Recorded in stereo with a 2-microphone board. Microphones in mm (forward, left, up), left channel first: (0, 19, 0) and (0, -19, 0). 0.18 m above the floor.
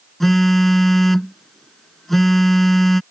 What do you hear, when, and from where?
0.2 s a phone buzzing: 5° left (ahead or behind)